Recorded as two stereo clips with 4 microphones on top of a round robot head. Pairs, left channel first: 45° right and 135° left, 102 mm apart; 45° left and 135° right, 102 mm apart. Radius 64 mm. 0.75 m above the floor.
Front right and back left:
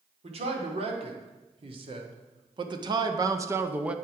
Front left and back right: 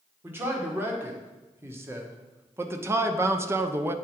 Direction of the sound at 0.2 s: 155° left.